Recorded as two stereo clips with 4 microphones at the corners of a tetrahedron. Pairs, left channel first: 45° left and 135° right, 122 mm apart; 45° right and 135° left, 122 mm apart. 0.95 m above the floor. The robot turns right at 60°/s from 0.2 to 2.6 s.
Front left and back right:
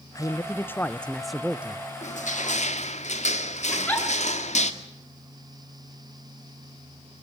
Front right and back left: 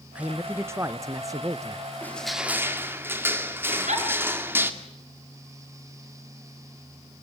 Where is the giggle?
125° left, 7 m.